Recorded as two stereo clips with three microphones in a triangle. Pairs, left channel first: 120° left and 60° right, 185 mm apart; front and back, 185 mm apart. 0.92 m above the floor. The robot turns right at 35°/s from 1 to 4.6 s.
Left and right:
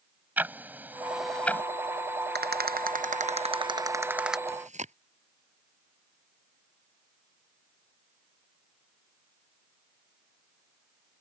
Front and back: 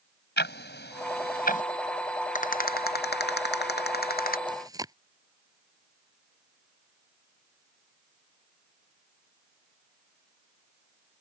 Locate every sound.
0.4 s ticking: 20° left; by 1.6 s 45° left
2.4 s a rattle: 45° right; by 4.4 s 30° left
4.5 s chewing: 115° right; by 4.9 s 110° right